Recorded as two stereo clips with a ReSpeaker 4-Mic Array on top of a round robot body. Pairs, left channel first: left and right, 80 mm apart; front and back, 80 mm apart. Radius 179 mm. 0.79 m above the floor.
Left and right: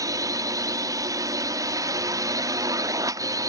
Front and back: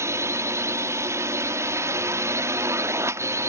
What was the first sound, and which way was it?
A drone, 130° right.